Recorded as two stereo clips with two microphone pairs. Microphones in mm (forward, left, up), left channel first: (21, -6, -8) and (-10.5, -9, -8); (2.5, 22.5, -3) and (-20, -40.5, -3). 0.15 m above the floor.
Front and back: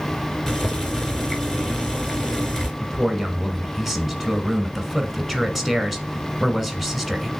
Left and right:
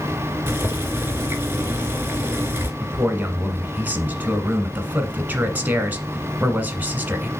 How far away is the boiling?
About 1.2 m.